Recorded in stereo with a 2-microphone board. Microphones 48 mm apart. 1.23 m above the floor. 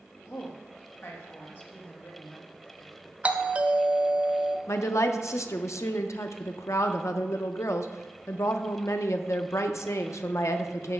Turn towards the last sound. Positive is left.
turn(degrees=70)  # may be behind; listen again after turning